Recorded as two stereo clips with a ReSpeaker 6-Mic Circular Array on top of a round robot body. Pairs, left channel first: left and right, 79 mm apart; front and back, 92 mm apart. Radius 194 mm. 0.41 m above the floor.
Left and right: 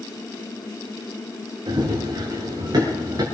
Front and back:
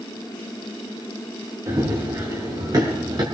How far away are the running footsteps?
About 7 m.